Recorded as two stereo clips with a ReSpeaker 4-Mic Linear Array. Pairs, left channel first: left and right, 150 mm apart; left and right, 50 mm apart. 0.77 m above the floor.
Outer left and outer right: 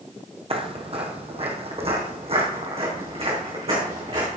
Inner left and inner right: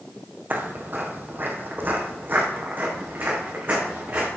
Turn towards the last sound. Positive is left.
turn(degrees=-40)  # may be behind; listen again after turning